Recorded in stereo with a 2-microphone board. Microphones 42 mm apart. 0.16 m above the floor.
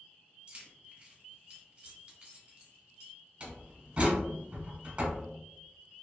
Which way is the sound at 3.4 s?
30° right (ahead or behind).